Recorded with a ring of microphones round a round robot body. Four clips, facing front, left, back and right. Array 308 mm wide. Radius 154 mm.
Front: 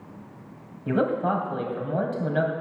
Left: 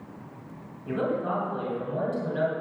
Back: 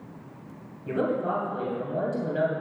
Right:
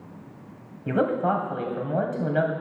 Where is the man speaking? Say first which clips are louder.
Right 5 dB, front 3 dB; 60° right, 2.5 m.